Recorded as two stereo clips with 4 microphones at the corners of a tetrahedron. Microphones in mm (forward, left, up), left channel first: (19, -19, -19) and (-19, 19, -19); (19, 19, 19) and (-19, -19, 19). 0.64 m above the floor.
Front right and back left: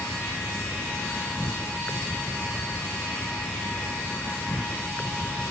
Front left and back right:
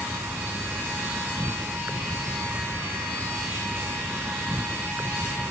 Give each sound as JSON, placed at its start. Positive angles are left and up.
{"t": 0.0, "sound": "an insect", "azimuth_deg": -95}